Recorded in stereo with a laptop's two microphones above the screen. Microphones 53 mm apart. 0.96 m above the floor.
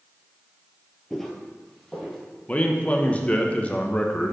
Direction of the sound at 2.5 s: 25° left (ahead or behind).